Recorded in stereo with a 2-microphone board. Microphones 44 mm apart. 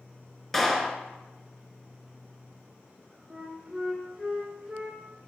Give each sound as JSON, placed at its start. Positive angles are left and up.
{"t": 0.5, "sound": "a clap", "side_deg": 5, "distance_m": 0.9}
{"t": 3.3, "sound": "a flute", "side_deg": -10, "distance_m": 1.4}